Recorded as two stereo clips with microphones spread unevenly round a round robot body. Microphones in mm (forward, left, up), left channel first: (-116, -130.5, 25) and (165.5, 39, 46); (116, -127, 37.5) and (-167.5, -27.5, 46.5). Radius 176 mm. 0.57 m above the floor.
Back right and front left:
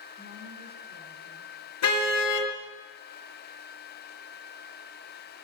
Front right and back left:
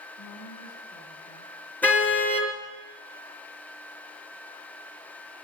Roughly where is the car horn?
Right.